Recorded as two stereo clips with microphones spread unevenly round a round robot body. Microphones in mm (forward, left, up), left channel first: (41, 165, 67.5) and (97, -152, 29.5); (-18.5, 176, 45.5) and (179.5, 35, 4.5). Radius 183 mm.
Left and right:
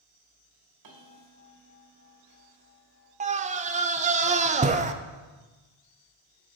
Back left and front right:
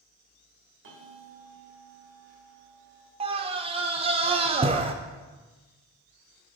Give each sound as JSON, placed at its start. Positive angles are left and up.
{"t": 0.8, "sound": "a bell", "azimuth_deg": -65, "distance_m": 1.6}
{"t": 3.2, "sound": "a scream", "azimuth_deg": -45, "distance_m": 0.5}